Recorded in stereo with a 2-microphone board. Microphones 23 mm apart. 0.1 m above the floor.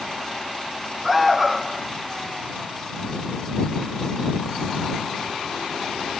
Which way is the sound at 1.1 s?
5° right (ahead or behind).